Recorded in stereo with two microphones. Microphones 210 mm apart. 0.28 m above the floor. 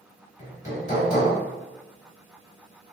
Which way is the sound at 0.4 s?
35° left (ahead or behind).